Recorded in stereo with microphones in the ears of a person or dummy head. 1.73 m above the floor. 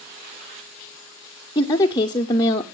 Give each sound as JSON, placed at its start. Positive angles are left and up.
{"t": 1.6, "sound": "a woman speaking", "side_deg": 25, "distance_m": 0.6}